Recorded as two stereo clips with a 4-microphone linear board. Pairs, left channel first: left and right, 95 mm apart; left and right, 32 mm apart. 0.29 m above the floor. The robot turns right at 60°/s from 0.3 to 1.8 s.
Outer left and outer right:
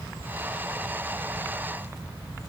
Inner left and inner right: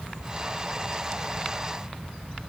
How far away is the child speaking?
I don't hear a child speaking.